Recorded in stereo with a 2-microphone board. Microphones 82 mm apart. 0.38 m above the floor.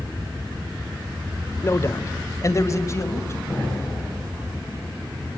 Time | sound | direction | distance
1.6 | a man speaking | 30° left (ahead or behind) | 1.3 m
3.5 | an explosion | 20° left (ahead or behind) | 8 m